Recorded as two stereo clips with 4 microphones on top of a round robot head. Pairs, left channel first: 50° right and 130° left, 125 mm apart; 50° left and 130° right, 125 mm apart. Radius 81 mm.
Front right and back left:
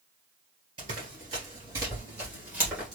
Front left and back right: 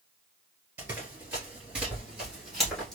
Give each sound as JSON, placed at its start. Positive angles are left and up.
{"t": 0.8, "sound": "running footsteps", "azimuth_deg": 165, "distance_m": 2.0}